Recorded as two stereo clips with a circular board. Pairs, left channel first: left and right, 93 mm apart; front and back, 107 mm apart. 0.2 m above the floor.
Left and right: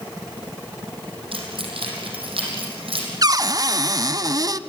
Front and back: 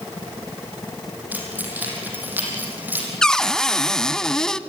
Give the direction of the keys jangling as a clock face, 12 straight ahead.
4 o'clock.